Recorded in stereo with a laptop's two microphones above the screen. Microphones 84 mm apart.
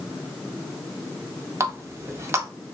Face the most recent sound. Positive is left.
turn(degrees=-35)  # may be behind; listen again after turning